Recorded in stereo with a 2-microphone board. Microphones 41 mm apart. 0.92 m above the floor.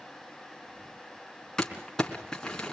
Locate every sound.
1.6 s crumpling: 15° left (ahead or behind), 3.5 m